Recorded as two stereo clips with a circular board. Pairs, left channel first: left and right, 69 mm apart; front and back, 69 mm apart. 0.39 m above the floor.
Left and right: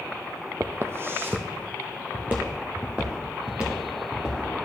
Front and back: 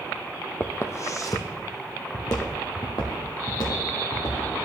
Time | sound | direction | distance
0.6 | footsteps | 55° right | 0.6 m